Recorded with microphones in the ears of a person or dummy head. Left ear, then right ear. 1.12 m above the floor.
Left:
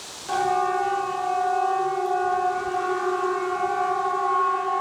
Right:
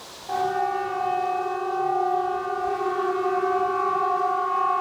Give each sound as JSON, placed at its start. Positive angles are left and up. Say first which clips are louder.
{"t": 0.3, "sound": "a siren", "louder": "left 2 dB", "side_deg": 75, "distance_m": 4.5}